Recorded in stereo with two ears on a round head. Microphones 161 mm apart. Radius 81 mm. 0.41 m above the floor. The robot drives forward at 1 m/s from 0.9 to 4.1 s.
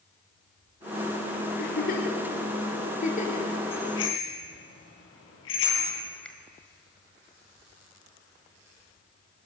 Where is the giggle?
60° left (ahead or behind), 3.5 m; by 3.5 s 40° left (ahead or behind), 5 m.